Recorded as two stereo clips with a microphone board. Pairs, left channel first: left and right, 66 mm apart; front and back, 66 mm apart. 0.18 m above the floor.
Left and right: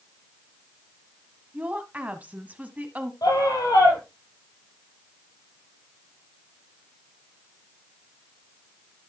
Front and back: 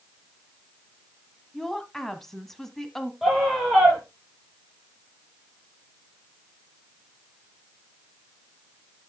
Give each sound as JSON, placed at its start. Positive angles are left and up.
{"t": 1.5, "sound": "a woman speaking", "azimuth_deg": -80, "distance_m": 1.2}
{"t": 3.2, "sound": "a scream", "azimuth_deg": 95, "distance_m": 5.5}